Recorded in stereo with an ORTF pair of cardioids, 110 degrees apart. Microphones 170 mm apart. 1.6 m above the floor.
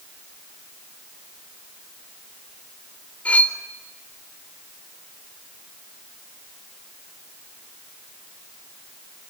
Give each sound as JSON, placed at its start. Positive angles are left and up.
{"t": 3.2, "sound": "cutlery clinking", "azimuth_deg": 10, "distance_m": 4.0}